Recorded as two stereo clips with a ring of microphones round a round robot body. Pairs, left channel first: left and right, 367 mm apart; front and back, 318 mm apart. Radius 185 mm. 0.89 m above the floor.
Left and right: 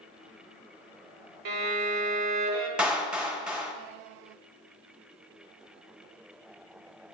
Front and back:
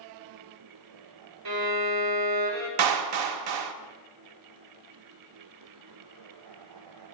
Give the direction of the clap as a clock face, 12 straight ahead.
6 o'clock.